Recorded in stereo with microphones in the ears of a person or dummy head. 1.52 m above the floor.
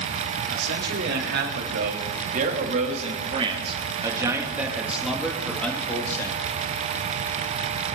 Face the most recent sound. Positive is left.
turn(degrees=10)  # may be behind; listen again after turning